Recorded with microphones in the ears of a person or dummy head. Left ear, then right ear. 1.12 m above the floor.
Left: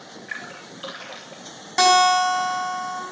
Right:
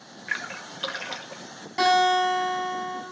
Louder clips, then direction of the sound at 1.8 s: Left 4 dB; 85° left.